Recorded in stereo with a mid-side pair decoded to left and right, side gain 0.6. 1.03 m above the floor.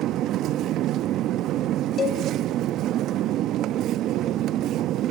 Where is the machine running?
60° right, 0.8 m.